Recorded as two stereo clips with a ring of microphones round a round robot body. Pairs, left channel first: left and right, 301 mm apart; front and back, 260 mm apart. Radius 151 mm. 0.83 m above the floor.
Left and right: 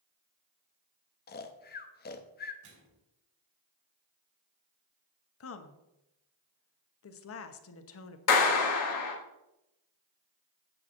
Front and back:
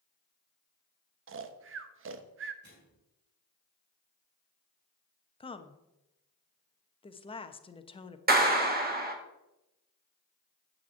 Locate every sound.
1.3 s snoring: 145° left, 0.8 m
2.6 s a microwave: 120° right, 3 m
5.4 s a woman speaking: 65° left, 0.9 m
8.3 s a clap: 125° left, 1.6 m